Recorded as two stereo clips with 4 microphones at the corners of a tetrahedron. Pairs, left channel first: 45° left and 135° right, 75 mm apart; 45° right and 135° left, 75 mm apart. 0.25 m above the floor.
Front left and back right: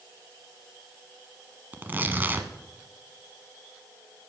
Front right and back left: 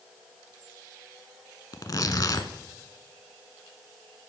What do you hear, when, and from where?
1.7 s tearing paper: 75° right, 1.0 m